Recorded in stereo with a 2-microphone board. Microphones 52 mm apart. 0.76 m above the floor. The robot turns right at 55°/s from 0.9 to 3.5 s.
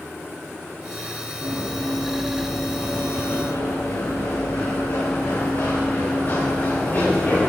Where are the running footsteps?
55° right (ahead or behind), 4 m; by 7.5 s 35° left (ahead or behind), 4.5 m.